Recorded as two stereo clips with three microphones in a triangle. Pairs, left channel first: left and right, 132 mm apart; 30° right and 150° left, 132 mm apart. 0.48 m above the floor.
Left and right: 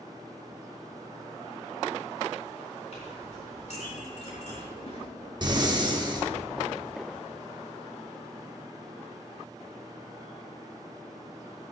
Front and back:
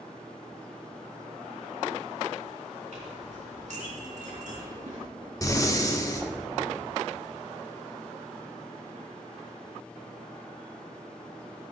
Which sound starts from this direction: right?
Breathing, at 5.4 s.